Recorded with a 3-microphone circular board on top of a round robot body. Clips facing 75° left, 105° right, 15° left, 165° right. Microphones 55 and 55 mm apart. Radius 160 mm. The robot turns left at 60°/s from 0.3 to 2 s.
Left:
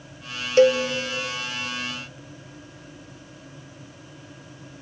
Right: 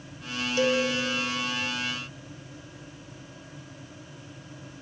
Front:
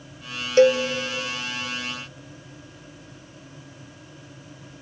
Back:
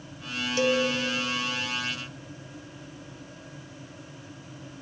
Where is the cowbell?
50° left, 0.7 m; by 0.8 s 35° left, 0.7 m.